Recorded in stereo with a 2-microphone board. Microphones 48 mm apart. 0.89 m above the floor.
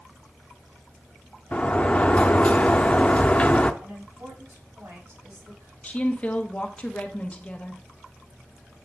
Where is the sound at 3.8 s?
85° right, 4.5 m.